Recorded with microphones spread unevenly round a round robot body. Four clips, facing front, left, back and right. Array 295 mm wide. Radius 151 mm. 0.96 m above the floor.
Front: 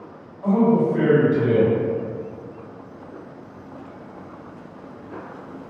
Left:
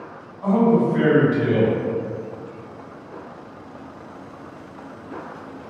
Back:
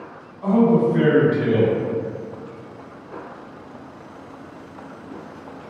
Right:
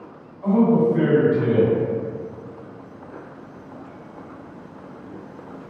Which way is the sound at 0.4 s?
125° left.